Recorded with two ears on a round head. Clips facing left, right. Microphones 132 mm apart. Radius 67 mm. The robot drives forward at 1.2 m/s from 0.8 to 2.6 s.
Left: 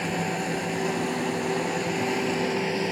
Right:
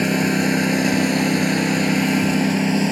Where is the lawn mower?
70° right (ahead or behind); by 2.9 s 60° right (ahead or behind).